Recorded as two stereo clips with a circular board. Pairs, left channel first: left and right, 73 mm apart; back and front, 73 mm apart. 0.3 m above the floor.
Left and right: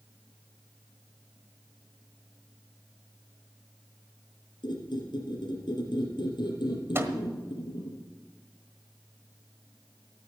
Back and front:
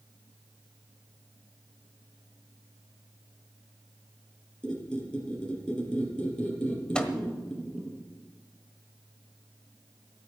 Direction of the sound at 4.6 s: 100° left.